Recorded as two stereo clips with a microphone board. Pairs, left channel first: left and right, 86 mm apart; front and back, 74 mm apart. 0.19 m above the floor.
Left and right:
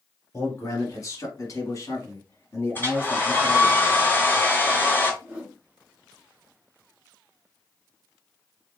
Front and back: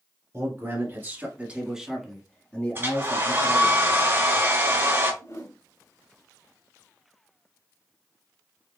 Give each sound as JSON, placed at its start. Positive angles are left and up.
{"t": 0.3, "sound": "a man speaking", "azimuth_deg": 140, "distance_m": 1.9}
{"t": 2.8, "sound": "a hair dryer", "azimuth_deg": 140, "distance_m": 2.0}
{"t": 5.2, "sound": "a whoosh", "azimuth_deg": -20, "distance_m": 2.0}